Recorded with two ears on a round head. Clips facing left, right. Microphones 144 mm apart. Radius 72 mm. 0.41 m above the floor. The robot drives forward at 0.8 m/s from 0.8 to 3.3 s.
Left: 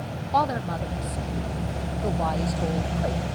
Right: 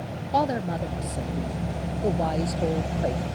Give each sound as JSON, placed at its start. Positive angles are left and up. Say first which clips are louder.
{"t": 0.3, "sound": "a woman speaking", "louder": "even", "side_deg": -25}